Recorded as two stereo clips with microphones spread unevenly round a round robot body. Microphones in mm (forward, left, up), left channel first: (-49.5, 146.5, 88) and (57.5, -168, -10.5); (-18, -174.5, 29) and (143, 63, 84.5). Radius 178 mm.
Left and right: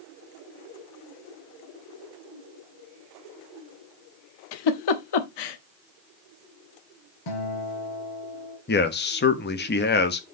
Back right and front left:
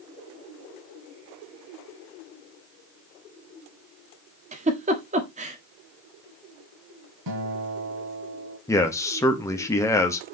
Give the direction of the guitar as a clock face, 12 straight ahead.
9 o'clock.